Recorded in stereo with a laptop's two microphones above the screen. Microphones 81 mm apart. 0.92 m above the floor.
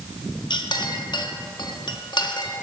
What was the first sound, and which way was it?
A clink, 70° left (ahead or behind).